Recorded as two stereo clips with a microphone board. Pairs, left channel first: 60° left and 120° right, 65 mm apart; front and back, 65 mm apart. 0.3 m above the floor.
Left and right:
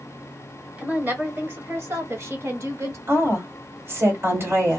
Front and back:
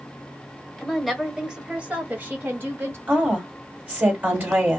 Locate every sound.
0.8 s a woman speaking: 80° right, 1.1 m; by 3.0 s 140° right, 1.6 m
3.1 s a woman speaking: 130° right, 1.9 m